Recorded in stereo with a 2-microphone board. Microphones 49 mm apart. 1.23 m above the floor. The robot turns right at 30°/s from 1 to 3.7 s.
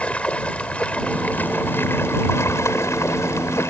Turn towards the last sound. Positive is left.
turn(degrees=105)